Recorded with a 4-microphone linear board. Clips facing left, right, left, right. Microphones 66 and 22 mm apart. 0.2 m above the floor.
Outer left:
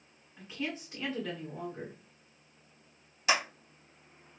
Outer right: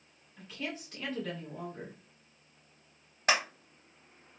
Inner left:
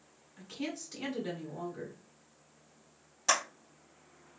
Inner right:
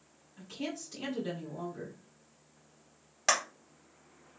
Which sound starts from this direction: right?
A clap, at 3.3 s.